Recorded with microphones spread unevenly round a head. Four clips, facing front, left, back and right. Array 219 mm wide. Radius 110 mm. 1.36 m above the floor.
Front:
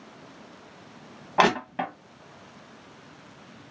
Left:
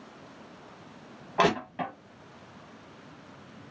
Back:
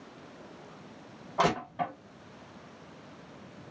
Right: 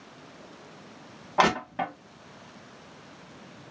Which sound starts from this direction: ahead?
Crushing, at 1.4 s.